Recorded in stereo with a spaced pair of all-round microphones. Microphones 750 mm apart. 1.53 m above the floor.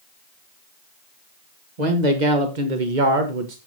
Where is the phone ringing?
I don't hear a phone ringing.